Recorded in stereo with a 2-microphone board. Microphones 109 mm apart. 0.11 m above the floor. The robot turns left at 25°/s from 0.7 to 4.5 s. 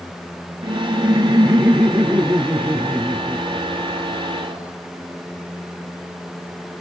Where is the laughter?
130° right, 1.8 m; by 4.7 s 135° left, 1.8 m.